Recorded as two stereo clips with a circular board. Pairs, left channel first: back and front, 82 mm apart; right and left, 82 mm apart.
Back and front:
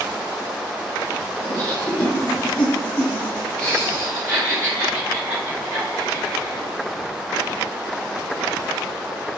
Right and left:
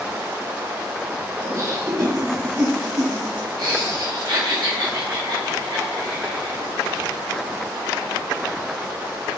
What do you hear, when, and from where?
1.4 s laughter: 125° left, 1.9 m; by 6.6 s 90° left, 4 m